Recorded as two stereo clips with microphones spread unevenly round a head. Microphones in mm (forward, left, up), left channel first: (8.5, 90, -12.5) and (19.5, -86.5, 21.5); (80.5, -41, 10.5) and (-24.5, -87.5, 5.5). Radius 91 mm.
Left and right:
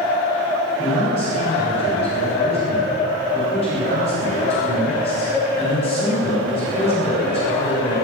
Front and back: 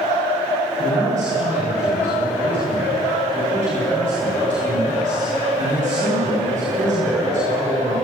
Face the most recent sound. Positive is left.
turn(degrees=155)